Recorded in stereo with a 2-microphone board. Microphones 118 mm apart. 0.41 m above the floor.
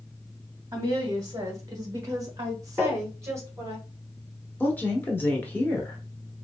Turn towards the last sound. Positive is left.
turn(degrees=15)  # may be behind; listen again after turning